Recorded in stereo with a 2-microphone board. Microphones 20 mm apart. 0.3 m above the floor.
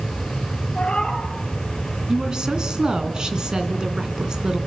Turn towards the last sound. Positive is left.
turn(degrees=-40)  # may be behind; listen again after turning